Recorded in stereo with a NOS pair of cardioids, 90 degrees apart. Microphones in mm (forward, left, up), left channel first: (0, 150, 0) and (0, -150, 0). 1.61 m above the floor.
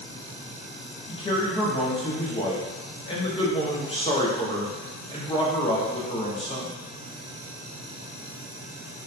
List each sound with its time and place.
1.1 s a man speaking: 20° left, 0.7 m